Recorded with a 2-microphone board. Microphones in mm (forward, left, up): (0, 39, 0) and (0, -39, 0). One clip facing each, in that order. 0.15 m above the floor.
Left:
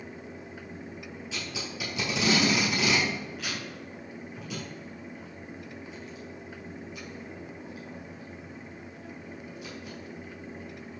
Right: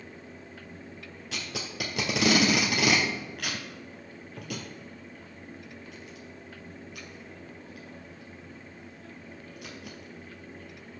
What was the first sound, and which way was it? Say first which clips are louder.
Tape being pulled: right 2 dB; 60° right (ahead or behind).